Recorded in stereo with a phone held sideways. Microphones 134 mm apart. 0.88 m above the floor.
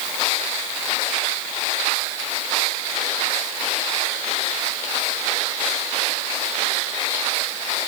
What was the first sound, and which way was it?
Only background noise.